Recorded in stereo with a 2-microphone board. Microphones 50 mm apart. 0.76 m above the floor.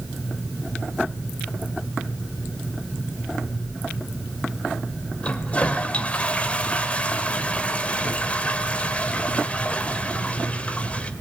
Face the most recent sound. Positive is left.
turn(degrees=25)  # may be behind; listen again after turning